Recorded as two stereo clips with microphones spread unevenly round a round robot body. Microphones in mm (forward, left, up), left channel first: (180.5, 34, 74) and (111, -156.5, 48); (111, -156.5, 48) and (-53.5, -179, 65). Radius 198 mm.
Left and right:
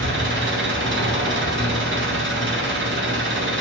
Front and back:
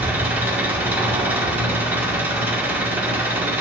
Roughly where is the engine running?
Right.